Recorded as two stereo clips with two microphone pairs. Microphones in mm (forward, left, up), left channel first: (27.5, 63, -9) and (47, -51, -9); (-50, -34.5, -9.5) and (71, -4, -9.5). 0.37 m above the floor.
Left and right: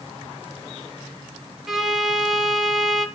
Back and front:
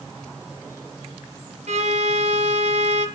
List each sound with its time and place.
1.7 s a violin: 5° left, 1.9 m